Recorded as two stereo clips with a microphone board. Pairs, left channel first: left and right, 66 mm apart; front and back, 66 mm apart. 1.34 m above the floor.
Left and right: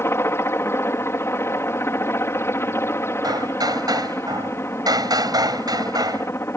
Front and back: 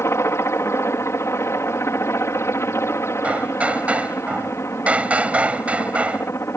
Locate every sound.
0.0 s a helicopter: 45° left
3.2 s hammering: 105° right